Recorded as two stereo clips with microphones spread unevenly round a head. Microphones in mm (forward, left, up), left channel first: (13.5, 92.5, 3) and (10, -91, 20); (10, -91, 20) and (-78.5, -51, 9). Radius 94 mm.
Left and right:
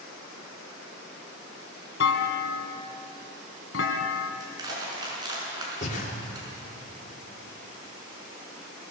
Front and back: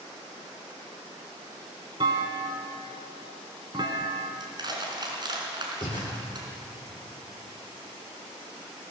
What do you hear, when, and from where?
2.0 s a clunk: 95° left, 1.4 m
4.4 s crushing: 160° right, 5.5 m
5.8 s breathing: 40° left, 2.5 m